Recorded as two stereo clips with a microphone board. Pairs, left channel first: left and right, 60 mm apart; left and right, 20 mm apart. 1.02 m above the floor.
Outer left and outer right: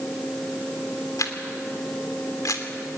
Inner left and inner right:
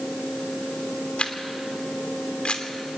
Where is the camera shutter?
70° left (ahead or behind), 2.5 m.